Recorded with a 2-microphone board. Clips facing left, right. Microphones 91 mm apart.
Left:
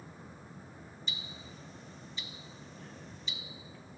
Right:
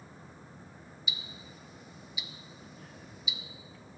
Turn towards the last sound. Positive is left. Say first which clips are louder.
# right 2 dB
turn(degrees=-10)  # may be behind; listen again after turning